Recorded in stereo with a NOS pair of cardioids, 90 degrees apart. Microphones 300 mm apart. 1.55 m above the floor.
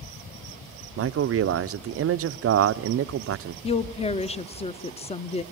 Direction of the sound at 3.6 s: 20° left.